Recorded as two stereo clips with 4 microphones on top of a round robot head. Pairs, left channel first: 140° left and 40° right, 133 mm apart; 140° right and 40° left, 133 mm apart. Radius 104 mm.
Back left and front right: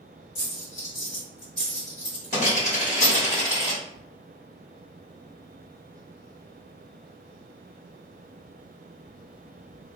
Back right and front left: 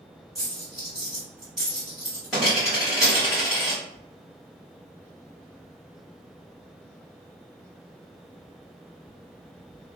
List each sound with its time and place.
0.3 s a dropped coin: 125° left, 2.0 m